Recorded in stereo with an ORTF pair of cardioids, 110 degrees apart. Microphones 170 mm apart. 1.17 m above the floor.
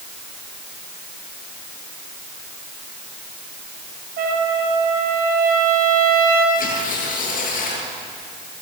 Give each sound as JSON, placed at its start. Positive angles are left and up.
{"t": 4.2, "sound": "a trumpet", "azimuth_deg": -65, "distance_m": 9.5}
{"t": 6.5, "sound": "tearing paper", "azimuth_deg": 55, "distance_m": 9.5}